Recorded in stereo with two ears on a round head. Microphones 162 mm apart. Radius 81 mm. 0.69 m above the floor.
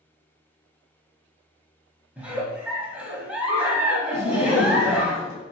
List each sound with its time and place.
2.2 s a giggle: 5° right (ahead or behind), 0.5 m
4.1 s laughter: 30° left (ahead or behind), 0.5 m